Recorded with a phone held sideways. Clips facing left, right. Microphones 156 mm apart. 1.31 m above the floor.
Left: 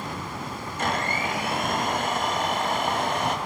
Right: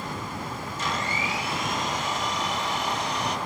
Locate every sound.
0.8 s a blender: 55° left (ahead or behind), 1.6 m